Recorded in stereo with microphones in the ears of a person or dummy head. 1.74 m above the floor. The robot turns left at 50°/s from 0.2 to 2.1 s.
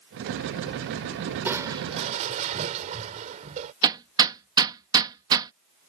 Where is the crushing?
10° right; by 3.7 s 45° right.